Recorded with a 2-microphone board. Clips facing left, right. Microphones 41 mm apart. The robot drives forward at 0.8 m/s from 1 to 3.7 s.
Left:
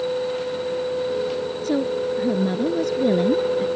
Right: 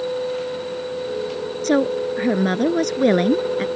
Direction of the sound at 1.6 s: 70° right (ahead or behind).